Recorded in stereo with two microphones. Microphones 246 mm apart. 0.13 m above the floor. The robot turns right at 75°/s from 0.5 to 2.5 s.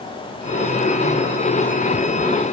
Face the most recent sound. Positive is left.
No sound to turn to.